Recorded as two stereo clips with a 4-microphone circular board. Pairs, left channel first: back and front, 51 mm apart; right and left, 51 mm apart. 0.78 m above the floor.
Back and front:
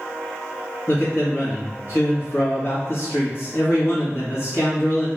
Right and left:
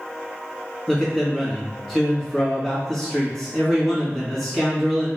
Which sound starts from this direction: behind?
A man speaking, at 0.9 s.